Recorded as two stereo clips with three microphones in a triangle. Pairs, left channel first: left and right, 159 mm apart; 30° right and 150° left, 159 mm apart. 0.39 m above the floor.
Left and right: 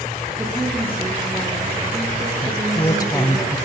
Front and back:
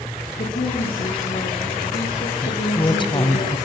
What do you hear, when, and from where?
0.4 s a woman speaking: 15° right, 8 m
2.4 s a woman speaking: 25° left, 2 m